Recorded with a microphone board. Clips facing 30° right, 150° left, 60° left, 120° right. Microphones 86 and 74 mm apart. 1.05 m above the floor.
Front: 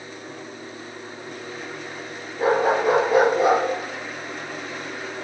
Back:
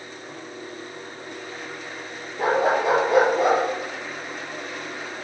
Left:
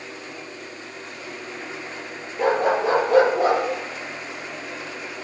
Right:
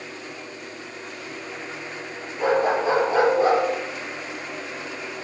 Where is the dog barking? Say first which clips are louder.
Front 1 dB, left 1 dB; 75° left, 5 m; by 3.6 s 55° left, 4.5 m.